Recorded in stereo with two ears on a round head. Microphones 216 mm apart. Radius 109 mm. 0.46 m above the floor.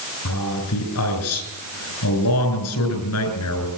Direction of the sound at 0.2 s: 75° left (ahead or behind).